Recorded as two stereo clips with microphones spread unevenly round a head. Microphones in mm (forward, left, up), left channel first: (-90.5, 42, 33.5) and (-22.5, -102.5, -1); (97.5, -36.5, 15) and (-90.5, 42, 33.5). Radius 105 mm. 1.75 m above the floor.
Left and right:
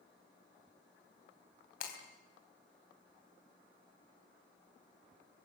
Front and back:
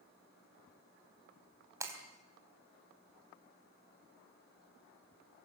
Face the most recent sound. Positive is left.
turn(degrees=85)